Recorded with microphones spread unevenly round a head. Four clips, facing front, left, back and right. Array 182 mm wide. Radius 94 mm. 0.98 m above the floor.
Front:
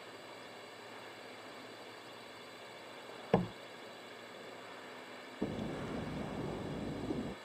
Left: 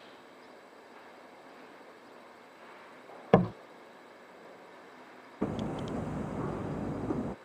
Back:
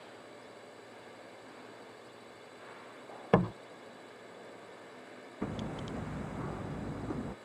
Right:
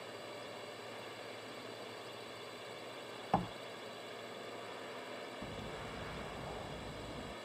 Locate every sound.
0.0 s a drone: 100° right
3.3 s a door slam: 100° left
5.4 s hammering: 80° left